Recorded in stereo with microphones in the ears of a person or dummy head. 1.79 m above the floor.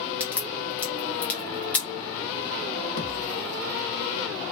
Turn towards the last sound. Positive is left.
turn(degrees=40)  # may be behind; listen again after turning